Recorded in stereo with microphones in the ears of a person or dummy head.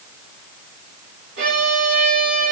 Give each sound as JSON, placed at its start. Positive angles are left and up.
{"t": 1.4, "sound": "a violin", "side_deg": -65, "distance_m": 4.5}